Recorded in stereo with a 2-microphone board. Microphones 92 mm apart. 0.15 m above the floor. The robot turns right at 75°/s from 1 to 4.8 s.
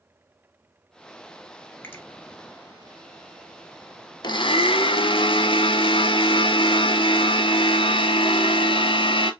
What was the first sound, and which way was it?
A finger snap, 25° left (ahead or behind).